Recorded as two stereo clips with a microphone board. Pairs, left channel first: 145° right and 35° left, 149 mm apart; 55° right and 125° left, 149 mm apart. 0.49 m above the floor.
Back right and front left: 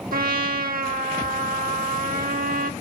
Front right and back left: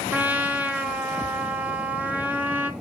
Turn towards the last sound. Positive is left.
turn(degrees=45)